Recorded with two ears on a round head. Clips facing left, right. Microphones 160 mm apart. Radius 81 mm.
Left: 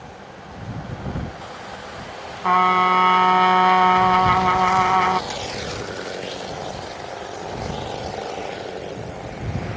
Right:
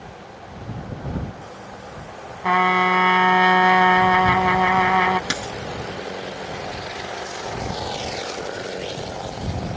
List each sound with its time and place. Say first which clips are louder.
2.4 s a trumpet: left 1 dB; 10° right (ahead or behind)
5.3 s a dropped coin: even; 75° right (ahead or behind)